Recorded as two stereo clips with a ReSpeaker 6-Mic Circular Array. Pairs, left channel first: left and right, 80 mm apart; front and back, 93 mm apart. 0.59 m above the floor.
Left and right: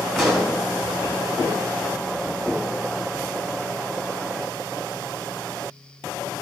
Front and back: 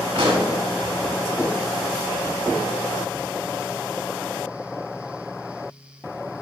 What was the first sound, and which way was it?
A pop, straight behind.